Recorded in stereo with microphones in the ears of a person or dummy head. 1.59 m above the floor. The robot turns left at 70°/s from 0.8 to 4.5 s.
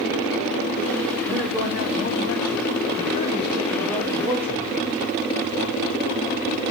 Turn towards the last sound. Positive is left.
turn(degrees=-45)